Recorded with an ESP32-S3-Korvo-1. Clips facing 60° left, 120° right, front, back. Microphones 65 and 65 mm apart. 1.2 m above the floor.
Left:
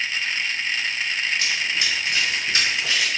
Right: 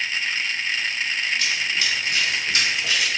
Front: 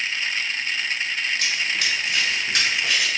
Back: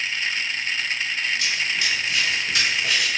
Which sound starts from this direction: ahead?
Running footsteps, at 1.4 s.